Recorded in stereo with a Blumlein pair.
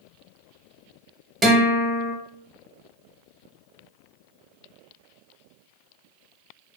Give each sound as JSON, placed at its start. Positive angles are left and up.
{"t": 1.4, "sound": "a guitar", "azimuth_deg": -20, "distance_m": 0.9}